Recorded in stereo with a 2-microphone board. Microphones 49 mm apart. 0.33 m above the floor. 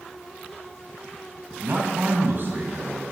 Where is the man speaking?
50° right (ahead or behind), 2 m.